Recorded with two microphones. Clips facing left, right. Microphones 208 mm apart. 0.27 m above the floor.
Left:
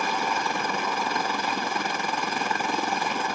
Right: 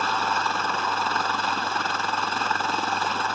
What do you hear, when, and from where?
0.0 s a helicopter: 15° left (ahead or behind)